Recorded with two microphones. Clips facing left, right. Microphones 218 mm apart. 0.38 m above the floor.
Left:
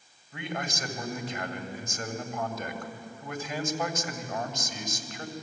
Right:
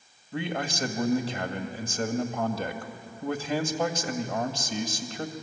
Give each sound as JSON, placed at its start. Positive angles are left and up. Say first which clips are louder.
{"t": 0.3, "sound": "a man speaking", "louder": "right 4 dB", "side_deg": -30, "distance_m": 2.0}